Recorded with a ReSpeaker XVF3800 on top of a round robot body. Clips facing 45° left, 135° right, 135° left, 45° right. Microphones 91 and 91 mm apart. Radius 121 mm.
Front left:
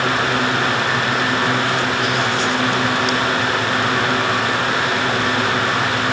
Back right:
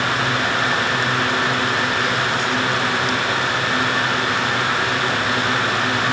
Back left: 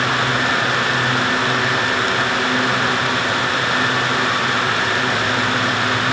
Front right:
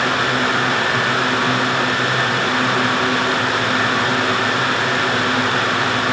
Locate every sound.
Only background noise.